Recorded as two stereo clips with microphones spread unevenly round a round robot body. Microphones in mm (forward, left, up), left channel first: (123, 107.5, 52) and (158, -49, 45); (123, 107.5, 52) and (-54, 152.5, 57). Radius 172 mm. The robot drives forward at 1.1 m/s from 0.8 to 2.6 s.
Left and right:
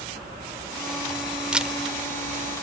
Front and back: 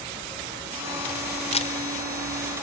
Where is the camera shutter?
Straight ahead, 1.8 m.